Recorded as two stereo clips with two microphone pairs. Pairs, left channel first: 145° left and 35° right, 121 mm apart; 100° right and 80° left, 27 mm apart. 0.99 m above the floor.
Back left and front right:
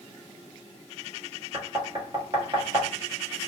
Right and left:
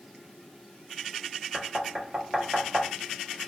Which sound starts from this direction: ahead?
Knocking, at 1.5 s.